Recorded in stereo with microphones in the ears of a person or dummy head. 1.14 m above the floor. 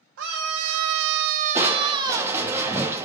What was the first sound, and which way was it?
A scream, 60° right (ahead or behind).